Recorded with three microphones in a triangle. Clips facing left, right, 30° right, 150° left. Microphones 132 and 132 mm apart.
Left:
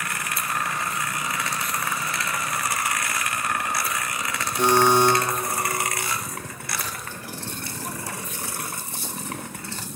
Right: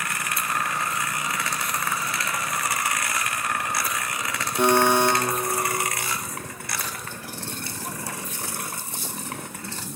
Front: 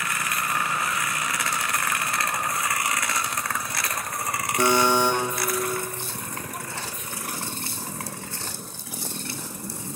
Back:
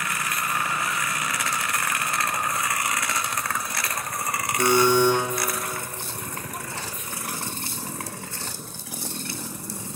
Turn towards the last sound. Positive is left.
turn(degrees=-55)